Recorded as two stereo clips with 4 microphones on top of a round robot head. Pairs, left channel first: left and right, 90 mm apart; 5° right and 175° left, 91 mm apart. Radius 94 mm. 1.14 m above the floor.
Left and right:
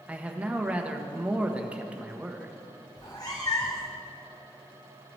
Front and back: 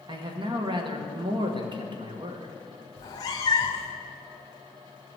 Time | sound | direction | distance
0.1 | a man speaking | 165° right | 1.3 m
3.0 | a cat meowing | 30° left | 0.6 m